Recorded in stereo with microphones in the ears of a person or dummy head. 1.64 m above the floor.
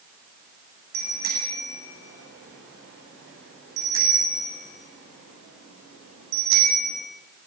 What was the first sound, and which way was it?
A bicycle bell, 45° right (ahead or behind).